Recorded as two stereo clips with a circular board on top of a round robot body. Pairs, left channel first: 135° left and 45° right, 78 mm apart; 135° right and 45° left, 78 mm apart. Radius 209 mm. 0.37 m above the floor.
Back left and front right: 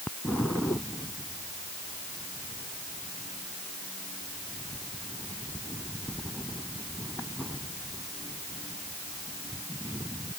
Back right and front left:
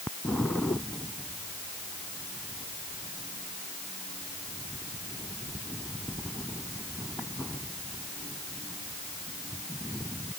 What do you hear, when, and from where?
Only background noise.